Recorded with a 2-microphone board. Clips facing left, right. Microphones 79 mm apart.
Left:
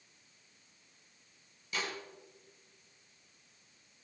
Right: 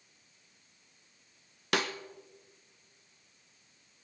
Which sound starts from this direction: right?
A snare drum, at 1.7 s.